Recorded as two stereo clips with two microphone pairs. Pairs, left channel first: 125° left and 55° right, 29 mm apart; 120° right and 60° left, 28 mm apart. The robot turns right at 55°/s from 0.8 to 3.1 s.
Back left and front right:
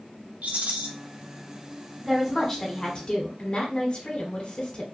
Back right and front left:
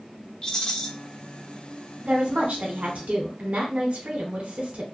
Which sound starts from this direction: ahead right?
A rattle, at 0.4 s.